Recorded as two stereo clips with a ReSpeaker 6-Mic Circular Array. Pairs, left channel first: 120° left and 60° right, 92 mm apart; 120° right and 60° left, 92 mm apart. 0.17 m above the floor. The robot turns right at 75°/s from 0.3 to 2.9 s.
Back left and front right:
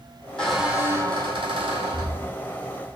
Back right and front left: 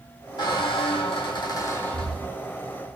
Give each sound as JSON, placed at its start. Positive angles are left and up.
{"t": 0.4, "sound": "a squeak", "azimuth_deg": -160, "distance_m": 1.8}